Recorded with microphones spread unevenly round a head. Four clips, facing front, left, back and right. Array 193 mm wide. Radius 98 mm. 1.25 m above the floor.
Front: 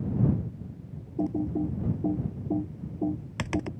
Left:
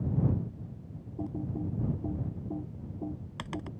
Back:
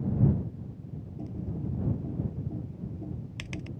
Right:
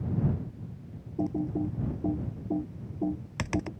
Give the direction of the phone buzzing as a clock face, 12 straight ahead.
No phone buzzing in this recording.